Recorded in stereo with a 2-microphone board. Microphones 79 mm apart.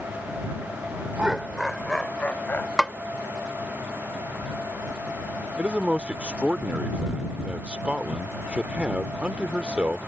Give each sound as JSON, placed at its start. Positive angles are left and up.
{"t": 1.2, "sound": "laughter", "side_deg": -15}
{"t": 2.8, "sound": "a snare drum", "side_deg": 5}
{"t": 5.6, "sound": "a man speaking", "side_deg": -15}